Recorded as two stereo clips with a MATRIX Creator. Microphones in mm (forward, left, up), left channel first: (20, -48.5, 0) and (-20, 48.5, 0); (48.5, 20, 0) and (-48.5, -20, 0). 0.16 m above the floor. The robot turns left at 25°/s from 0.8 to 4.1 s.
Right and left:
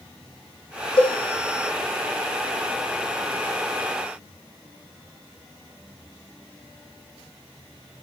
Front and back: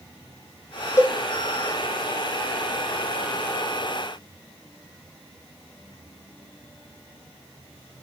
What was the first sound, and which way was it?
A cowbell, 40° right.